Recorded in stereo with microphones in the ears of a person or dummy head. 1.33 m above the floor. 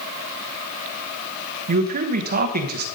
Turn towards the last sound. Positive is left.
turn(degrees=-45)  # may be behind; listen again after turning